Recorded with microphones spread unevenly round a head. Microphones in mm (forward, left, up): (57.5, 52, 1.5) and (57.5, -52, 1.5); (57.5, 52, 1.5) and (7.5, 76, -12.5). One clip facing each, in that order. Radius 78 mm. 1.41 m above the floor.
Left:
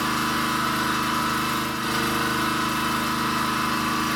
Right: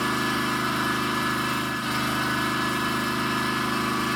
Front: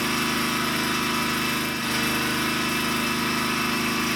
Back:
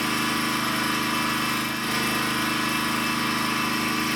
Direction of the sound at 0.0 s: 175° right.